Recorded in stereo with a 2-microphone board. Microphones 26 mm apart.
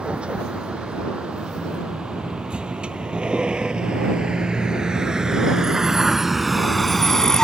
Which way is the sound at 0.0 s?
60° right (ahead or behind).